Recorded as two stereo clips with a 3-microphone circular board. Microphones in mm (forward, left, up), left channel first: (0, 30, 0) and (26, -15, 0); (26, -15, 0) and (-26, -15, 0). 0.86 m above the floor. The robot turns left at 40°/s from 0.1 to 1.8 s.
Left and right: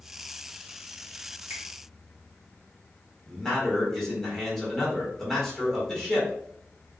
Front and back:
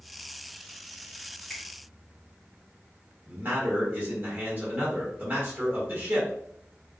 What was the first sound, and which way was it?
A finger snap, 80° right.